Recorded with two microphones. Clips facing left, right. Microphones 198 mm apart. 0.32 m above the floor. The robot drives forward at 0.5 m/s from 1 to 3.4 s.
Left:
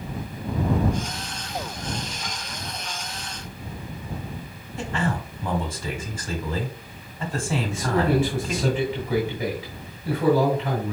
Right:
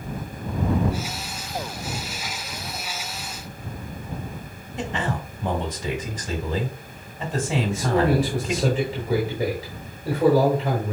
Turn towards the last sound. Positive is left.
turn(degrees=-40)  # may be behind; listen again after turning